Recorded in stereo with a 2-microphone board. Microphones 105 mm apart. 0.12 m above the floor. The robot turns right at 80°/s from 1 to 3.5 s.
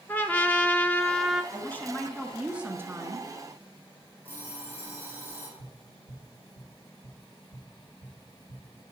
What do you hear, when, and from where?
0.1 s a trumpet: 155° left, 0.6 m; by 1.4 s 170° right, 0.6 m
1.5 s a woman speaking: 25° left (ahead or behind), 1.1 m; by 3.3 s 30° right (ahead or behind), 1.1 m
4.2 s an alarm clock: 15° right (ahead or behind), 3 m
5.6 s tapping: 65° right (ahead or behind), 3.5 m